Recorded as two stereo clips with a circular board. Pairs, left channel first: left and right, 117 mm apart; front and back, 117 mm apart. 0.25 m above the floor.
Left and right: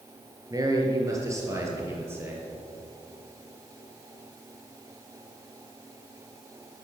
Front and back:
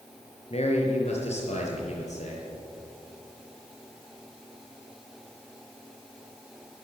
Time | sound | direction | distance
0.5 | a man speaking | 30° right | 5.5 m